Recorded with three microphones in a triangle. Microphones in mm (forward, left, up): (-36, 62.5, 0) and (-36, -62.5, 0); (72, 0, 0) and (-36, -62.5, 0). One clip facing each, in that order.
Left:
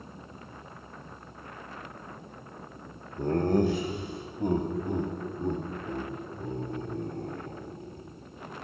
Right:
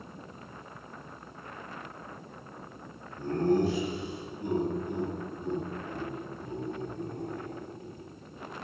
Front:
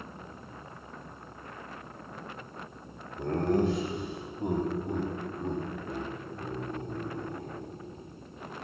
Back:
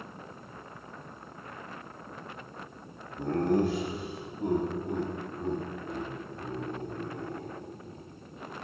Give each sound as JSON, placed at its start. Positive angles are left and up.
{"t": 3.2, "sound": "laughter", "azimuth_deg": 125, "distance_m": 1.2}